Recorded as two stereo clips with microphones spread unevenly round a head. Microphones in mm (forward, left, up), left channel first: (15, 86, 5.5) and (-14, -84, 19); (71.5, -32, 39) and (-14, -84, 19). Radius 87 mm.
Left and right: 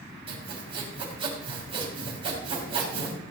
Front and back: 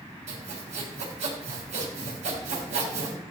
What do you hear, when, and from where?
0.3 s sawing: 160° right, 3.5 m